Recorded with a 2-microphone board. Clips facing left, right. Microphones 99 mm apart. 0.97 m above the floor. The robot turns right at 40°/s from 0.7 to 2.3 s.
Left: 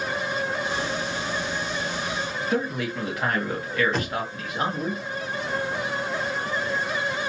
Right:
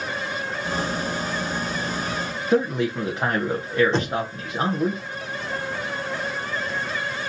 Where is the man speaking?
25° right (ahead or behind), 0.7 m.